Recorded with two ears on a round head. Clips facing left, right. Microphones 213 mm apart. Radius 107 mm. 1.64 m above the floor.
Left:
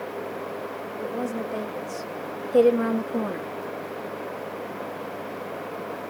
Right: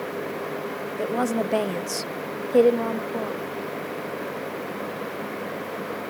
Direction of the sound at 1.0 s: 85° right.